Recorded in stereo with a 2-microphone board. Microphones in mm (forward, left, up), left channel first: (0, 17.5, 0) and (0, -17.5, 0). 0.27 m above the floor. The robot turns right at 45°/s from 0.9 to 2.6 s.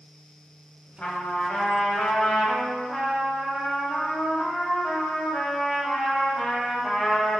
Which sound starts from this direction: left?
A trumpet, at 1.0 s.